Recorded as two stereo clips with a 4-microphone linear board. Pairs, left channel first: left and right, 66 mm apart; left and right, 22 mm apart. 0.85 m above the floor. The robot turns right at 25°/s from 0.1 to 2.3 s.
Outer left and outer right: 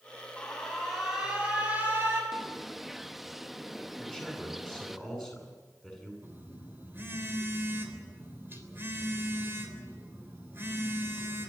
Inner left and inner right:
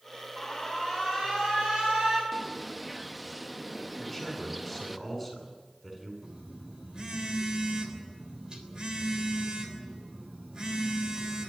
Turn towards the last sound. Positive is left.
turn(degrees=-35)  # may be behind; listen again after turning